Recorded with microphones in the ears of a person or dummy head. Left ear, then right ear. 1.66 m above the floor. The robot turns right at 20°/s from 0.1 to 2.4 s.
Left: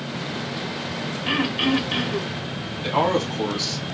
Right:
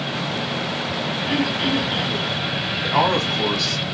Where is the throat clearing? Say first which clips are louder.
Left 1 dB; 55° left (ahead or behind), 0.8 m; by 2.3 s 65° left (ahead or behind), 0.8 m.